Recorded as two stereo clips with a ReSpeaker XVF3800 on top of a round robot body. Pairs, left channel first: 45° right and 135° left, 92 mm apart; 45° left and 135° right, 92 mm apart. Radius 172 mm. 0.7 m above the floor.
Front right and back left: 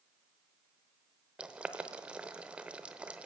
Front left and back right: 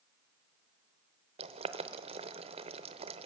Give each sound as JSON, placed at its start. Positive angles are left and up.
{"t": 1.4, "sound": "boiling", "azimuth_deg": -145, "distance_m": 0.7}